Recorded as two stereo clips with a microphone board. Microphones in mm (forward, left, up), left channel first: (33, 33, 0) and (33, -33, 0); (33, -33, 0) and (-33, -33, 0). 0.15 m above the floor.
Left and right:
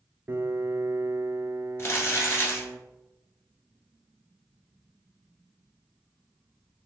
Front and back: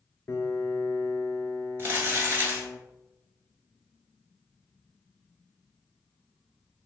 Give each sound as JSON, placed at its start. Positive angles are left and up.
{"t": 0.3, "sound": "a piano", "azimuth_deg": -40, "distance_m": 0.5}
{"t": 1.8, "sound": "crumpling", "azimuth_deg": 130, "distance_m": 1.4}